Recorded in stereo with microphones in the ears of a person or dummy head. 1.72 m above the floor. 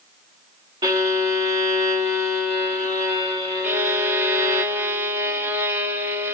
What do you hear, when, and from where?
0.8 s a violin: 20° right (ahead or behind), 1.7 m
3.6 s a violin: 10° right (ahead or behind), 1.1 m